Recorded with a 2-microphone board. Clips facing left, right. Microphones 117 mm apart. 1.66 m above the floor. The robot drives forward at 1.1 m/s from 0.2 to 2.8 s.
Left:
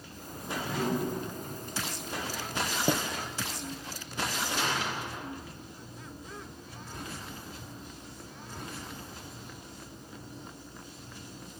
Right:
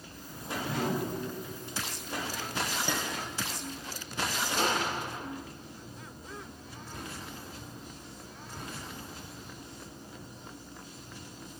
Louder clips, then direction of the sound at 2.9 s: Left 4 dB; 35° left (ahead or behind).